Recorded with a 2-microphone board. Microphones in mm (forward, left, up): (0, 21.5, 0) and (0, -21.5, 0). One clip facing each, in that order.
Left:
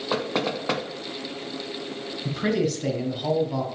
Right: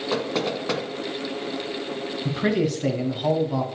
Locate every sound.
0.1 s knocking: 15° left (ahead or behind), 1.1 m
2.2 s a man speaking: 15° right (ahead or behind), 1.2 m